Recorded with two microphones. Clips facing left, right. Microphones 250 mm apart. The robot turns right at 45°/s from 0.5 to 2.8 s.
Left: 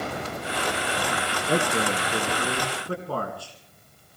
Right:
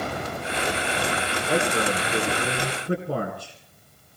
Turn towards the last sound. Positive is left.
turn(degrees=-155)